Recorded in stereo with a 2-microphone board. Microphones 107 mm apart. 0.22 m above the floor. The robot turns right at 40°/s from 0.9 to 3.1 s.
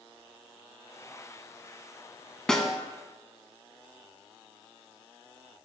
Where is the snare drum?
5° left (ahead or behind), 0.6 m; by 2.8 s 5° right (ahead or behind), 0.6 m.